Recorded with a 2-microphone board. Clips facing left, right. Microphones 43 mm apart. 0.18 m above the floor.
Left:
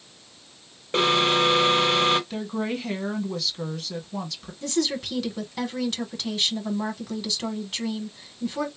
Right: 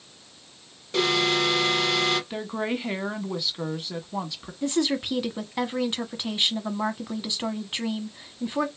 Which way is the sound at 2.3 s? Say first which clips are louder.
Even; 15° right (ahead or behind).